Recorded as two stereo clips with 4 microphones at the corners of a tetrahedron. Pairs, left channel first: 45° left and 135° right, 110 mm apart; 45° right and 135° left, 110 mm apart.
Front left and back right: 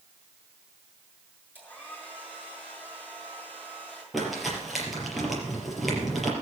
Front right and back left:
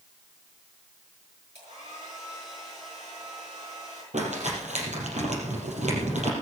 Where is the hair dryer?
120° left, 7 m.